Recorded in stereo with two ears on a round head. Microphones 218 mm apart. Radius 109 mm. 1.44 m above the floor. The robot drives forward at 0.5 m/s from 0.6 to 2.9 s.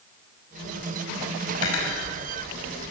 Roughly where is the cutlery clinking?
Left.